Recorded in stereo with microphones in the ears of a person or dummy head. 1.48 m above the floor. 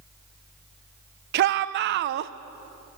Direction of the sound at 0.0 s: 15° left (ahead or behind).